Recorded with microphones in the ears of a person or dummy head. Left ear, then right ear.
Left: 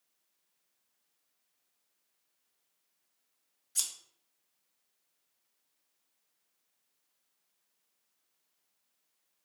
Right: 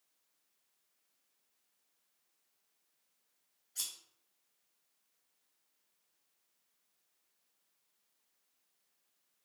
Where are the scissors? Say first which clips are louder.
Left 6 dB; 70° left (ahead or behind), 1.3 m.